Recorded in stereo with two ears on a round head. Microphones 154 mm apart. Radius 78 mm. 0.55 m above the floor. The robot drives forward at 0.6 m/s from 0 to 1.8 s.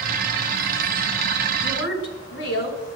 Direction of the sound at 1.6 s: 75° left (ahead or behind).